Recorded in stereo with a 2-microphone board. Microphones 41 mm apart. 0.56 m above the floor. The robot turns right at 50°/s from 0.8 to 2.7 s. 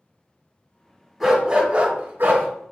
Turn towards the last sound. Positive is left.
turn(degrees=-105)